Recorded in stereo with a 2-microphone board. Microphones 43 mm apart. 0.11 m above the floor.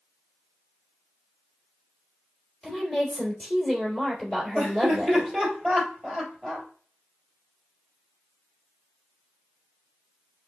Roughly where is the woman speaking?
Left.